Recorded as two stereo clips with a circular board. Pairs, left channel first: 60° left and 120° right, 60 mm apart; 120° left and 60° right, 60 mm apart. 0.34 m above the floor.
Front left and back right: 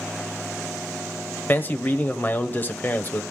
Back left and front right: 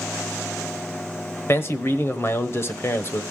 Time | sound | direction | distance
1.5 | a man speaking | 100° left | 1.1 m